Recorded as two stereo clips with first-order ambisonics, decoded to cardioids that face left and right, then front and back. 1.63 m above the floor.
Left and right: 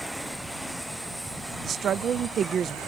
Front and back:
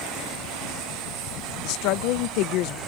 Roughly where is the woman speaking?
Ahead right.